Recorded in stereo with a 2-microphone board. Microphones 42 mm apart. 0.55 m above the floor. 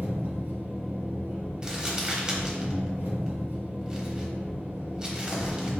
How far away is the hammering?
I don't hear hammering.